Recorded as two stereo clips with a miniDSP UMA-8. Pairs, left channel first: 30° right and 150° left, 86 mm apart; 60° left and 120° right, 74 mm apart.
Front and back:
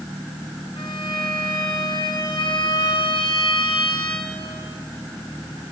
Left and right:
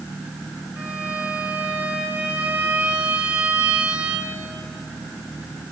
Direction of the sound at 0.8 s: 50° right.